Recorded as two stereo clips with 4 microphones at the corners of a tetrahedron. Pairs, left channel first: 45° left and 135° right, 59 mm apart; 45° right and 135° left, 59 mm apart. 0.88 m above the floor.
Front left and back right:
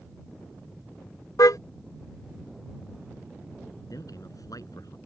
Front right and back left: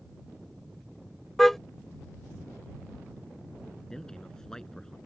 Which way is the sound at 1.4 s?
40° left.